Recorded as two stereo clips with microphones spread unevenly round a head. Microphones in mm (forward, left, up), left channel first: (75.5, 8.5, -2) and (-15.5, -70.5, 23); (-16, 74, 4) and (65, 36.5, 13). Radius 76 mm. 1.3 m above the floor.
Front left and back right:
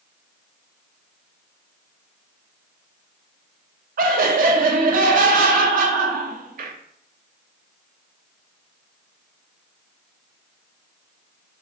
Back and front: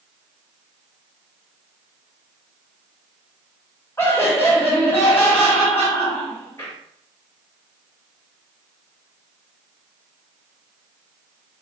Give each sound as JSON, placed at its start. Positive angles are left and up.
{"t": 4.0, "sound": "laughter", "azimuth_deg": -130, "distance_m": 0.6}